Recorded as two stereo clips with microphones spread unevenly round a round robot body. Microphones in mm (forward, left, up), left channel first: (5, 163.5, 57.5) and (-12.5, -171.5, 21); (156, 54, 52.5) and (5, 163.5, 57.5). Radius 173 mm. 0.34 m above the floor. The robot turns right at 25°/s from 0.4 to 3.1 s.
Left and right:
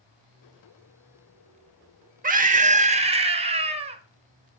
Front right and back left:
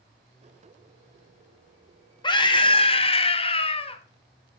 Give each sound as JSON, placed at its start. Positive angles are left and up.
{"t": 2.2, "sound": "a scream", "azimuth_deg": -75, "distance_m": 0.9}